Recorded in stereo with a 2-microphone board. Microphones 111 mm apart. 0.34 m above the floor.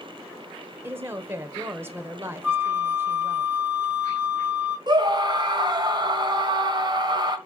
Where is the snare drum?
No snare drum in this recording.